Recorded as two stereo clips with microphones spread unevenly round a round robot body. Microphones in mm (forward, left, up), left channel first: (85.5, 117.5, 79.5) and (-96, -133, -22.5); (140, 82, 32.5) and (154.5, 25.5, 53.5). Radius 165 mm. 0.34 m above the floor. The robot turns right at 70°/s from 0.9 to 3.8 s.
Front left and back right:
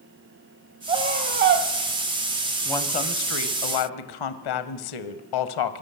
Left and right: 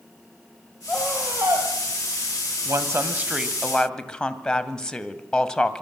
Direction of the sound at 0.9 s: Straight behind.